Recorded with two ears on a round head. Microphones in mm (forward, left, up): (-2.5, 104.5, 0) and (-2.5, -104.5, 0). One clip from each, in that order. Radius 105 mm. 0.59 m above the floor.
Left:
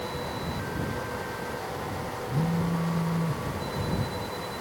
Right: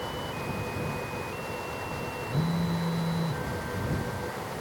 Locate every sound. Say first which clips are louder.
2.3 s a phone buzzing: left 3 dB; 65° left (ahead or behind)